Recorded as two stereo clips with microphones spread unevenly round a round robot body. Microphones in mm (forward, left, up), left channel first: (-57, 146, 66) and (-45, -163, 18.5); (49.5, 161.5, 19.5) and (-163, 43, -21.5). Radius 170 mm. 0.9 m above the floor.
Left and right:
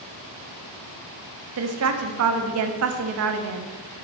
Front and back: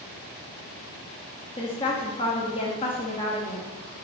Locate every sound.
1.6 s a woman speaking: 50° right, 0.8 m